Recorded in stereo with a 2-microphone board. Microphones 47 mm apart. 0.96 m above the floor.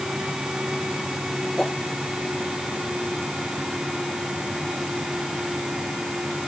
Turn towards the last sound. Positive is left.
turn(degrees=10)  # may be behind; listen again after turning